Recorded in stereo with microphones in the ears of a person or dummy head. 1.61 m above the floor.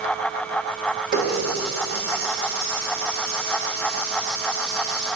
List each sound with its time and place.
1.1 s a running tap: 55° right (ahead or behind), 1.8 m